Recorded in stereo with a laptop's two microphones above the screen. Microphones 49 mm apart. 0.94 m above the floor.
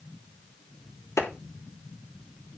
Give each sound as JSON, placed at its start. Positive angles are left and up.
{"t": 1.2, "sound": "a clap", "side_deg": 75, "distance_m": 3.0}